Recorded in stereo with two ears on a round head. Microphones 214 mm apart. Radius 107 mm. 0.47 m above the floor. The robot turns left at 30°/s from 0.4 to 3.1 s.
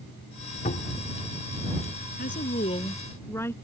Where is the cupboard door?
30° left (ahead or behind).